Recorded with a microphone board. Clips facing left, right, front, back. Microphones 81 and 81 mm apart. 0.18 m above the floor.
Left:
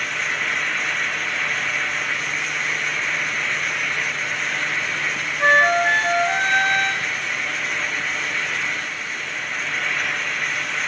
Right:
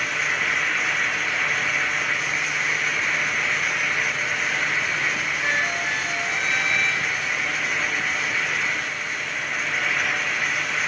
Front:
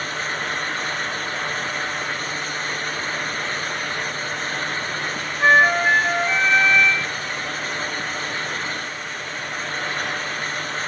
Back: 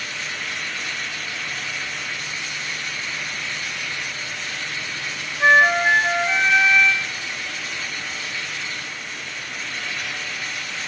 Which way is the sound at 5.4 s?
90° left.